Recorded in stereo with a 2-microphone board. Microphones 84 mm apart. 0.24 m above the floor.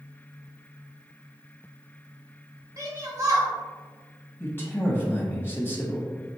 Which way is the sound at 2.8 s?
40° right (ahead or behind).